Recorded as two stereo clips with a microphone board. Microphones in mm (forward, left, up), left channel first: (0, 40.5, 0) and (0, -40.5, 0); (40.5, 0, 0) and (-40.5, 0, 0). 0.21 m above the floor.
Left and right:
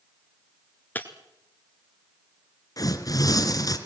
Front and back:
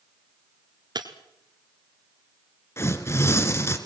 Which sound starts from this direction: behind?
Breaking glass, at 0.9 s.